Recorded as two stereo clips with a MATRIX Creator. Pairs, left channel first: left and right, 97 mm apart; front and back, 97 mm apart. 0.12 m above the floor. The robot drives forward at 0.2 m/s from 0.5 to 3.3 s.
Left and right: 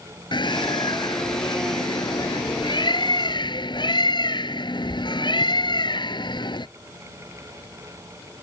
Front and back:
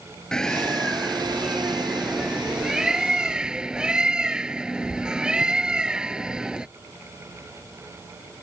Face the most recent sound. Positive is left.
turn(degrees=100)